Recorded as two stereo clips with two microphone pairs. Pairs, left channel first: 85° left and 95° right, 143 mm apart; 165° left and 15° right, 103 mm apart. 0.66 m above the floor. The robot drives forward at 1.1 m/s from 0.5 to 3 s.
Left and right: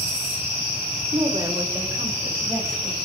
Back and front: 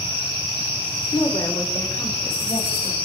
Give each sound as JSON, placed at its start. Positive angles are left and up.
{"t": 1.1, "sound": "a woman speaking", "azimuth_deg": -145, "distance_m": 1.9}